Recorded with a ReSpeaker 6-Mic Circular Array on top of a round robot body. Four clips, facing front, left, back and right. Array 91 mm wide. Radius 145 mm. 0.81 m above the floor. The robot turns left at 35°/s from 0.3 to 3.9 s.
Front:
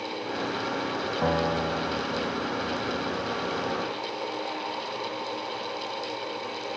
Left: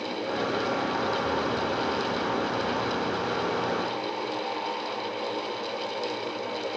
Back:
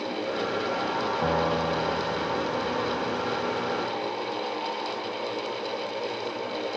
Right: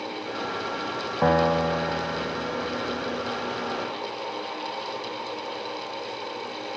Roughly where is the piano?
Right.